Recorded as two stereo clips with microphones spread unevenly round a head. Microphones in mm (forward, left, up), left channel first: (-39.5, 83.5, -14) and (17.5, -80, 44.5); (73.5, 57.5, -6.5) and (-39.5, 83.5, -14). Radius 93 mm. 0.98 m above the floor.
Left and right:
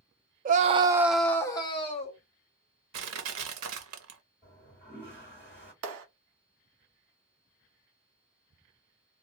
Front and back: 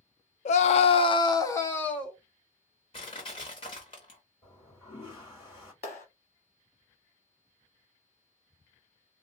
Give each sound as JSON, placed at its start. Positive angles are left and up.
{"t": 0.5, "sound": "a scream", "azimuth_deg": -20, "distance_m": 0.5}
{"t": 2.9, "sound": "crushing", "azimuth_deg": -75, "distance_m": 0.7}
{"t": 4.4, "sound": "a toilet flushing", "azimuth_deg": 35, "distance_m": 2.5}
{"t": 5.8, "sound": "a clap", "azimuth_deg": -70, "distance_m": 1.0}